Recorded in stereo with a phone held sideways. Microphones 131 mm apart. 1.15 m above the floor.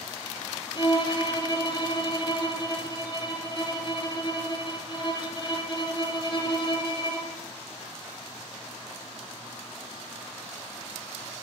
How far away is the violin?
About 2 m.